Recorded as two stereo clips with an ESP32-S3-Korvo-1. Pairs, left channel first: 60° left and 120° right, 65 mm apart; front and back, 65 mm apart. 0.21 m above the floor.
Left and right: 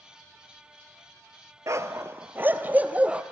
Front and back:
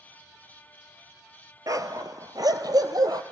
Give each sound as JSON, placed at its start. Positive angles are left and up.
{"t": 1.7, "sound": "a dog barking", "azimuth_deg": -155, "distance_m": 1.3}